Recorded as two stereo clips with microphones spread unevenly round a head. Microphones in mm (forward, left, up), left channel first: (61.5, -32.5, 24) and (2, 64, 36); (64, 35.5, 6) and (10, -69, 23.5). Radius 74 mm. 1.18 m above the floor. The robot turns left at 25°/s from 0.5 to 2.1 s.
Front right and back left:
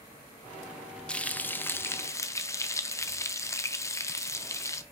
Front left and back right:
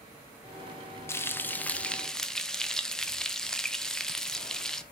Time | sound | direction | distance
1.1 | frying | 15° left | 0.8 m